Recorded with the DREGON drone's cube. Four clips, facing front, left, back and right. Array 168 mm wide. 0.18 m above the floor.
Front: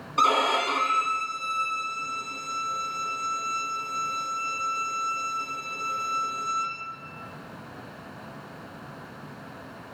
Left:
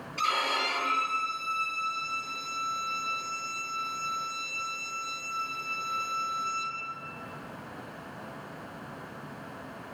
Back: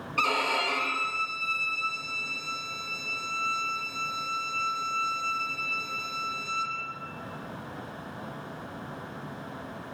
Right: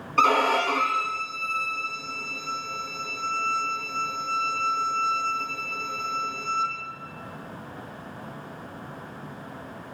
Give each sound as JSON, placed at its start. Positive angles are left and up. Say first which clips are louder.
{"t": 0.2, "sound": "a violin", "louder": "right 9 dB, front 6 dB", "azimuth_deg": -65, "distance_m": 3.5}